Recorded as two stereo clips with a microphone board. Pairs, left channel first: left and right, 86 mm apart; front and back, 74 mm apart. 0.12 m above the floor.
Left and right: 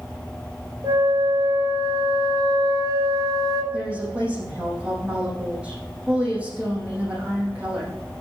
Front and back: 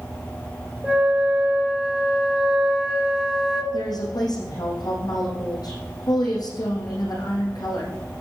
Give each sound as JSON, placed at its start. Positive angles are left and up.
{"t": 0.8, "sound": "a flute", "azimuth_deg": -95, "distance_m": 1.9}
{"t": 3.7, "sound": "a woman speaking", "azimuth_deg": -15, "distance_m": 5.5}